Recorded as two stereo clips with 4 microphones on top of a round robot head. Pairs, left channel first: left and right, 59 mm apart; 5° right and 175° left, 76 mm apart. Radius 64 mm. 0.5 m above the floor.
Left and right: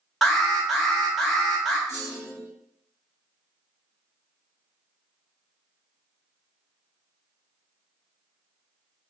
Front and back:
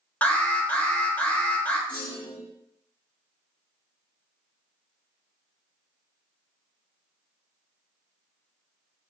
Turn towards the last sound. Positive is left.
turn(degrees=-80)